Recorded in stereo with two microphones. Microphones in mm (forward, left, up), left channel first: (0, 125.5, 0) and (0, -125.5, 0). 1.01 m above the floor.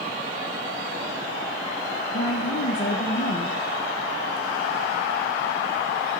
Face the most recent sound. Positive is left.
turn(degrees=50)  # may be behind; listen again after turning